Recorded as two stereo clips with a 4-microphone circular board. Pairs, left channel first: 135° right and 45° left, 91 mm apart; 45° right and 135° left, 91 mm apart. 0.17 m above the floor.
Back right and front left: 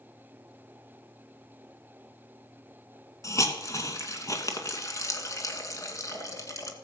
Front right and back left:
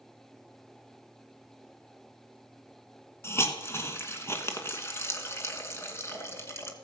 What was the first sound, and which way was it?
A hiss, 95° right.